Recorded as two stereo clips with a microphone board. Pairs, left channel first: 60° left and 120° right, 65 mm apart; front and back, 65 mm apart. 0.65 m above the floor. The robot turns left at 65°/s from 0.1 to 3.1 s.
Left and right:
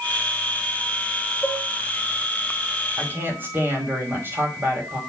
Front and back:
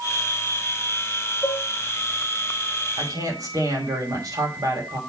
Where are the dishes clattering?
20° left, 5 m; by 1.7 s 5° left, 5 m.